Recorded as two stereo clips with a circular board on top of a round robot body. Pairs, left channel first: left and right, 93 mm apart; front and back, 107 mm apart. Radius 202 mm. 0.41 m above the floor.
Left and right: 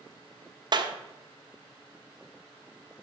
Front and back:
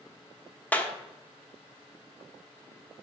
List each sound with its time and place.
0.7 s a clap: 75° right, 1.5 m